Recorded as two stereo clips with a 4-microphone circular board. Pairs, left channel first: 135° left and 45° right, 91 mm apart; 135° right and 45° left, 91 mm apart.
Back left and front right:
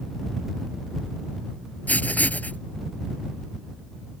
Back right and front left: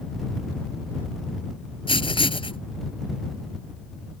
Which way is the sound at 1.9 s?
150° right.